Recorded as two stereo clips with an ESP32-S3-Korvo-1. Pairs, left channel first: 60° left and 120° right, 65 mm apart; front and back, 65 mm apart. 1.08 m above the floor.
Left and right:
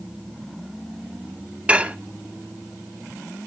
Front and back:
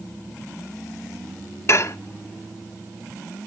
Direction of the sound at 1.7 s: 50° right.